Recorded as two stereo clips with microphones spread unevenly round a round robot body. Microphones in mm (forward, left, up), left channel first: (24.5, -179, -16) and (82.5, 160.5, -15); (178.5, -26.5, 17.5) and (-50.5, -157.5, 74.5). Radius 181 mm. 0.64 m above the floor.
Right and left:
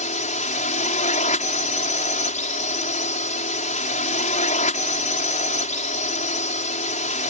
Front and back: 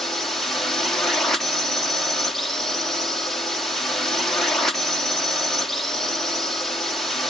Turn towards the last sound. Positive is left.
turn(degrees=-45)